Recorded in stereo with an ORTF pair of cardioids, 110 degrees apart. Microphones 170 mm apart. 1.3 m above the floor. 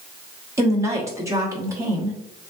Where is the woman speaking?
20° right, 1.1 m.